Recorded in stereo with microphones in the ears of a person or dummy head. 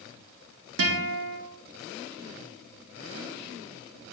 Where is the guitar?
65° right (ahead or behind), 1.2 m.